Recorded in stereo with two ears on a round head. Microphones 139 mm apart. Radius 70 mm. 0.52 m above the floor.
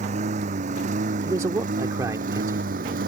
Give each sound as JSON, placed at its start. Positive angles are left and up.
{"t": 0.0, "sound": "a lawn mower", "side_deg": -50}
{"t": 1.2, "sound": "a man speaking", "side_deg": -20}